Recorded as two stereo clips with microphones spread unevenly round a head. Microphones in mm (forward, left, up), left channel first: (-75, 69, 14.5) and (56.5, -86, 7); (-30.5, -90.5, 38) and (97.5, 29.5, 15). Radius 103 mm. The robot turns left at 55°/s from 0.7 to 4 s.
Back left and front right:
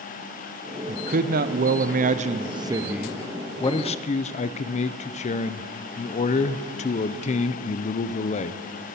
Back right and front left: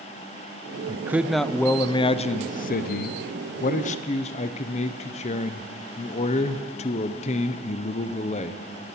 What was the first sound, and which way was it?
A man speaking, 15° right.